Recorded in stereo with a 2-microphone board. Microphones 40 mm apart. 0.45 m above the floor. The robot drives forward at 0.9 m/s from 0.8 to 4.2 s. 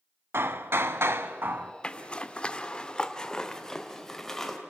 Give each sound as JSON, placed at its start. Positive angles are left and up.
{"t": 0.3, "sound": "hammering", "side_deg": -80, "distance_m": 0.9}
{"t": 1.8, "sound": "a zipper", "side_deg": 25, "distance_m": 1.1}